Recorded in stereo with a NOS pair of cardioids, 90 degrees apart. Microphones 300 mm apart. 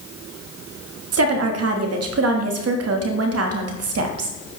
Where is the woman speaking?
55° right, 1.5 m.